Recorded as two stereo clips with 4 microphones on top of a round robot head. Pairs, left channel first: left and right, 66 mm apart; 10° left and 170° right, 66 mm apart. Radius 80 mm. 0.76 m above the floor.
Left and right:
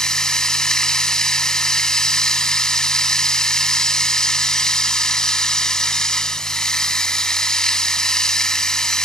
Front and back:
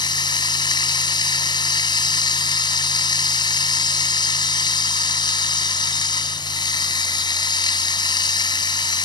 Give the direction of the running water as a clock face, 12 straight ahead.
12 o'clock.